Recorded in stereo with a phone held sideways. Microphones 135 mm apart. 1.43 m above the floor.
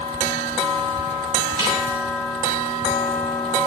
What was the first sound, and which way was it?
A snare drum, 40° right (ahead or behind).